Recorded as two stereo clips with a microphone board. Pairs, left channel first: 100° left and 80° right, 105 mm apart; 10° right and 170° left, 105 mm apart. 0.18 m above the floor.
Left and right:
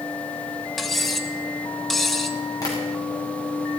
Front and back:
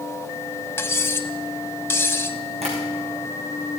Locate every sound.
0.8 s cutlery clinking: 15° left, 0.7 m
2.6 s tapping: 155° left, 4 m